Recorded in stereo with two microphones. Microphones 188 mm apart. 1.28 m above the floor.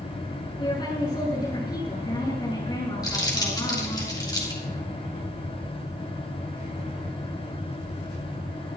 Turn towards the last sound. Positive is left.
turn(degrees=20)  # may be behind; listen again after turning